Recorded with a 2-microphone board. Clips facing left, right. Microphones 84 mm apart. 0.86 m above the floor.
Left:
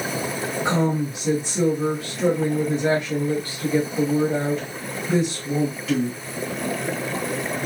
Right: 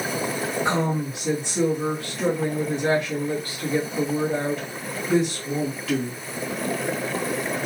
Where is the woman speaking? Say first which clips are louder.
Left 4 dB; 15° left (ahead or behind), 1.5 m.